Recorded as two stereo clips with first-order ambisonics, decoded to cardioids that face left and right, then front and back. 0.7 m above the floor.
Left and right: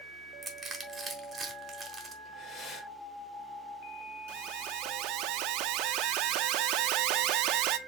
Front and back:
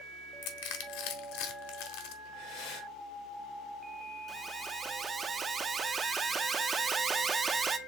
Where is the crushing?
15° right, 1.2 m.